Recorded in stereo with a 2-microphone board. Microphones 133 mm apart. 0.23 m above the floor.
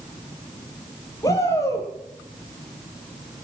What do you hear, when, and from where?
1.2 s a shout: 25° left (ahead or behind), 7.5 m